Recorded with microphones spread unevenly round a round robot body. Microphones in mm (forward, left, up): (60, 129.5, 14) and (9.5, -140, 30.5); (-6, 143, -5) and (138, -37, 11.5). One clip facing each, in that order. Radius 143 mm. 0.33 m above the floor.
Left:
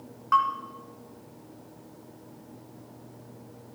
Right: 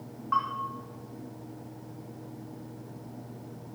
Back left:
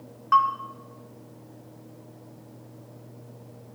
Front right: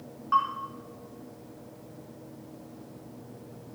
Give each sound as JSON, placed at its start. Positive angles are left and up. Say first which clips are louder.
{"t": 0.3, "sound": "a bell", "louder": "left 6 dB, back left 6 dB", "azimuth_deg": 110, "distance_m": 3.0}